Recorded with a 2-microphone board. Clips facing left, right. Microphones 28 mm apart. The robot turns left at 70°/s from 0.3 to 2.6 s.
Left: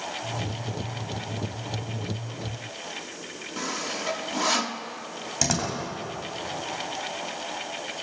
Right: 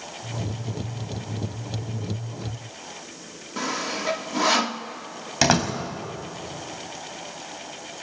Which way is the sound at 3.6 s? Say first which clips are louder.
Right 4 dB; 15° right (ahead or behind).